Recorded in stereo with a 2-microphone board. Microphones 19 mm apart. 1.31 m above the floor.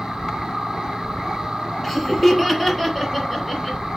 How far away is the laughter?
About 0.6 m.